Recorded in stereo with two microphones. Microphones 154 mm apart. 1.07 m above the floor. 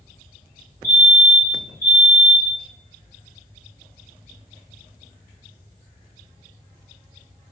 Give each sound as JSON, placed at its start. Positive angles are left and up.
{"t": 0.8, "sound": "a fire alarm", "side_deg": -30, "distance_m": 1.3}